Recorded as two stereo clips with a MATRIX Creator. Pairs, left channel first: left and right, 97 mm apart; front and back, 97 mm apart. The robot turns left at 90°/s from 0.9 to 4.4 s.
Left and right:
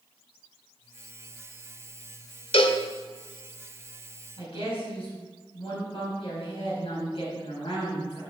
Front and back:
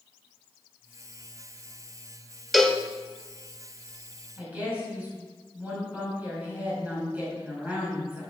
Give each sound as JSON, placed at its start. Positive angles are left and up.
{"t": 2.5, "sound": "a cowbell", "azimuth_deg": 90, "distance_m": 1.1}
{"t": 4.4, "sound": "a woman speaking", "azimuth_deg": 110, "distance_m": 5.0}